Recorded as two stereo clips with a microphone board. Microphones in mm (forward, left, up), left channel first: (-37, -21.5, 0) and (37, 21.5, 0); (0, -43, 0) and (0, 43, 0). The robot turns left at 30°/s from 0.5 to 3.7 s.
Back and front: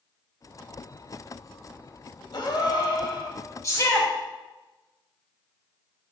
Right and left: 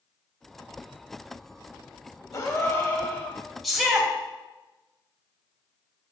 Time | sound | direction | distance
2.3 | a gasp | 130° right | 1.3 m
3.6 | a shout | straight behind | 1.8 m